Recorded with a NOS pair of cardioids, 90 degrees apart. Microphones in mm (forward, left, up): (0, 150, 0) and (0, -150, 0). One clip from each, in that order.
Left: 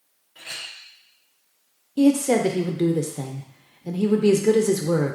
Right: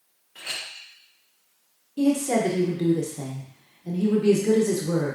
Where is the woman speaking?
25° left, 0.5 m.